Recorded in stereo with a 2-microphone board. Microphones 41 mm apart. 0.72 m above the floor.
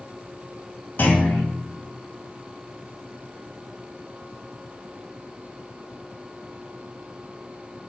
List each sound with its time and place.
1.0 s a clunk: 50° left (ahead or behind), 2.5 m